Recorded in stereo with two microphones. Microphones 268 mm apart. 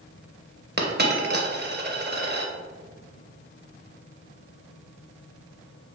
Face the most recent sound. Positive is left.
turn(degrees=-40)  # may be behind; listen again after turning